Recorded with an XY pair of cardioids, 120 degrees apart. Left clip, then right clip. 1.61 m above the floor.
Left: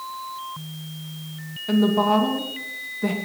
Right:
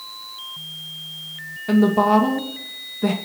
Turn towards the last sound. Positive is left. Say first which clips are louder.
# right 3 dB
turn(degrees=-25)